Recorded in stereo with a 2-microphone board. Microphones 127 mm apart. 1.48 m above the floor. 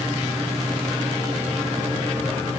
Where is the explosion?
I don't hear an explosion.